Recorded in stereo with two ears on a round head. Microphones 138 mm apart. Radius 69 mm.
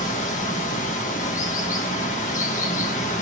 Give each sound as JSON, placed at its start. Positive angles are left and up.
{"t": 0.0, "sound": "running water", "side_deg": 50, "distance_m": 1.0}